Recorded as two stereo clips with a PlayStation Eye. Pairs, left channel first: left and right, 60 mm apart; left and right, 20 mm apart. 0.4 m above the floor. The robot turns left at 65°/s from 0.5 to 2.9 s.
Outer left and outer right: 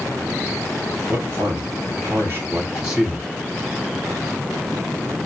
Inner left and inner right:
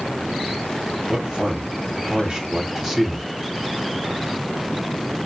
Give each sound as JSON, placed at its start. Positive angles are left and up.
{"t": 1.1, "sound": "a man speaking", "side_deg": -40, "distance_m": 2.0}